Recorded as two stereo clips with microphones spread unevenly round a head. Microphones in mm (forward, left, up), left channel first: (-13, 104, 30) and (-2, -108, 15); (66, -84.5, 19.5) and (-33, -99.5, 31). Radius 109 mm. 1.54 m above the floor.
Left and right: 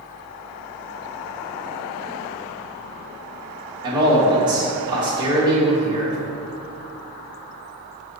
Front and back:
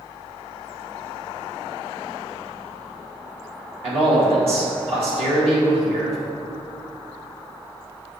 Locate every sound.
3.8 s a man speaking: 160° right, 2.0 m